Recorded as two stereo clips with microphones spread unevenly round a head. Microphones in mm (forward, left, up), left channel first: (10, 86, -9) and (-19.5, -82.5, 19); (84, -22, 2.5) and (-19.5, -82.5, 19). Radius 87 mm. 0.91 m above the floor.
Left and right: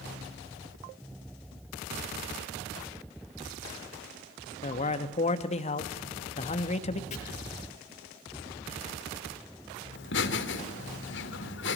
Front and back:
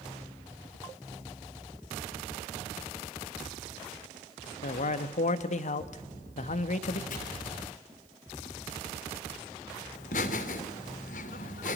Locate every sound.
4.6 s a man speaking: 35° left, 1.2 m
7.1 s chopping: 25° left, 5.5 m
9.9 s laughter: 60° left, 2.5 m